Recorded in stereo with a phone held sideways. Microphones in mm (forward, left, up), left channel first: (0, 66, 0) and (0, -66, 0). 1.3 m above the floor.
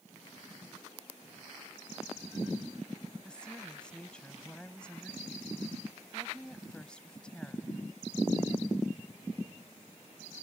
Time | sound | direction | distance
3.2 | a woman speaking | 10° left (ahead or behind) | ?